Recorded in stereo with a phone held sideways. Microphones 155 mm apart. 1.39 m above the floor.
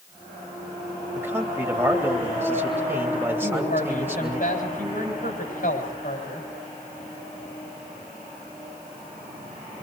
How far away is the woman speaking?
About 7 m.